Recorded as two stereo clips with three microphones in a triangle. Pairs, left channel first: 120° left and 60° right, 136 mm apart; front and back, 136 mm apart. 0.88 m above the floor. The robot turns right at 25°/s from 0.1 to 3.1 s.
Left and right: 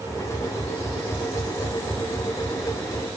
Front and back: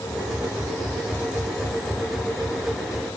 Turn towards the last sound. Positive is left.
No sound to turn to.